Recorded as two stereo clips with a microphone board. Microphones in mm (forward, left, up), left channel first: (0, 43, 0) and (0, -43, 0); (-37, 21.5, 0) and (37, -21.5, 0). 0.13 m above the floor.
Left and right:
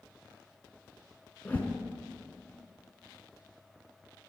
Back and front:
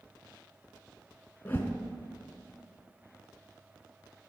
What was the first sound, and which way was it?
A whoosh, 130° left.